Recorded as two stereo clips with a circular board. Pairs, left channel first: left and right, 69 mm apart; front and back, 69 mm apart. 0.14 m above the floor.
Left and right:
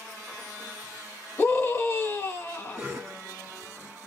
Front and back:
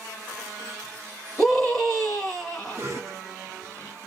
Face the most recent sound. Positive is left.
turn(degrees=-170)